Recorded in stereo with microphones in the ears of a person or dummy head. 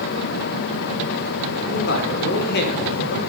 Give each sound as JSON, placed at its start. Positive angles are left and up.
{"t": 1.6, "sound": "a man speaking", "side_deg": 55, "distance_m": 4.0}